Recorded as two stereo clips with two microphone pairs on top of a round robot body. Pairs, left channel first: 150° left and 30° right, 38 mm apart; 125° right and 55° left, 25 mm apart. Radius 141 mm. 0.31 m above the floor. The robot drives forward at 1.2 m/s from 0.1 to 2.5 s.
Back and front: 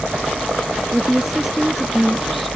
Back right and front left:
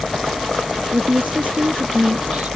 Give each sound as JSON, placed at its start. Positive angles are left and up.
{"t": 0.9, "sound": "a woman speaking", "azimuth_deg": 55}